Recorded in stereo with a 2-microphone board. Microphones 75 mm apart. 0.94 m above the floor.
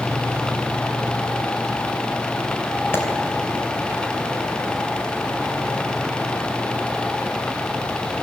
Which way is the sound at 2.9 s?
30° left (ahead or behind).